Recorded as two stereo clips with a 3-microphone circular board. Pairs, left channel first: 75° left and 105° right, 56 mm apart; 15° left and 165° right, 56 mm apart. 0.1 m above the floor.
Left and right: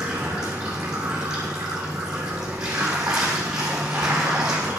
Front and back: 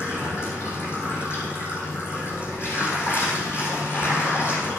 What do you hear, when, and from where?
0.0 s running water: 30° right, 3.5 m